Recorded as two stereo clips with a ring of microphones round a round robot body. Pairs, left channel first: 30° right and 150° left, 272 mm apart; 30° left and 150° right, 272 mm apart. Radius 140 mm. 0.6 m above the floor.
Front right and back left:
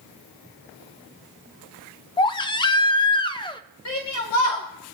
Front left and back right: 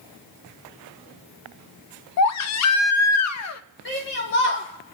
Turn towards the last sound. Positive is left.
turn(degrees=-15)